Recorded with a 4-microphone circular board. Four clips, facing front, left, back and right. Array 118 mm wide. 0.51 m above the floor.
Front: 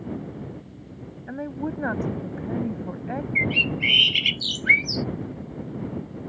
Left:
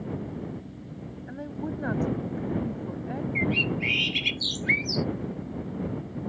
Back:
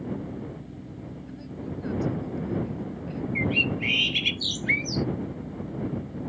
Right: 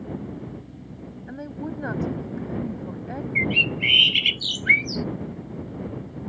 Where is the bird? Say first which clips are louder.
Right 2 dB, back 1 dB; 35° right.